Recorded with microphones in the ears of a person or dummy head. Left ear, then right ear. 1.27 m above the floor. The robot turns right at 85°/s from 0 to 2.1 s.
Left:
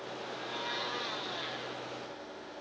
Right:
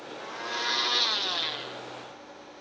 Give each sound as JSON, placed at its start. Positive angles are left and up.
{"t": 0.2, "sound": "a blender", "azimuth_deg": -150, "distance_m": 0.6}